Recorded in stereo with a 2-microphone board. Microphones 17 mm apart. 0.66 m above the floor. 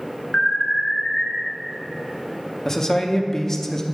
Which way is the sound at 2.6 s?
25° left (ahead or behind).